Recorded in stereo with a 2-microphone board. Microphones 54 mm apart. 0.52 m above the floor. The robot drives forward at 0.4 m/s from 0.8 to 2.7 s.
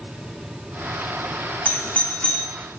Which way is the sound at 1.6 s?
25° left (ahead or behind).